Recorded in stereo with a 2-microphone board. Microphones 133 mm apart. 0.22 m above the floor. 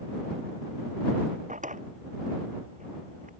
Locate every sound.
1.5 s a drawer: 75° right (ahead or behind)